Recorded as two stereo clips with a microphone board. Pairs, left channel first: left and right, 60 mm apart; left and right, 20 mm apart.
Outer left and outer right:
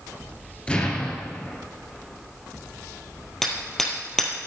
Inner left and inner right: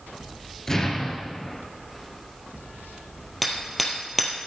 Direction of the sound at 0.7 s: 20° left (ahead or behind).